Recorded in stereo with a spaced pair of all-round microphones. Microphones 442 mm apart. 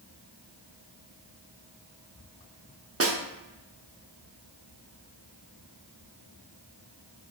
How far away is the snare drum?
About 0.8 m.